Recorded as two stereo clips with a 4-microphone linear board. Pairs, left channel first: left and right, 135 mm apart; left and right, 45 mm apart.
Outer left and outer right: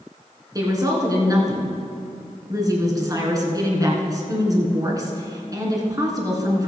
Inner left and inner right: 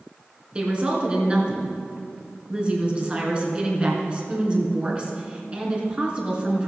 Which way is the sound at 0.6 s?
25° right (ahead or behind).